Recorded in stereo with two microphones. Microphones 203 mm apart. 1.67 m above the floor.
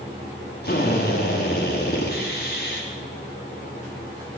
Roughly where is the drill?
Left.